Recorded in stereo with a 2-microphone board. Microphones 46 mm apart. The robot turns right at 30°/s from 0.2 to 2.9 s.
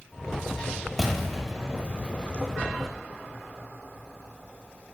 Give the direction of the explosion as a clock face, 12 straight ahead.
12 o'clock.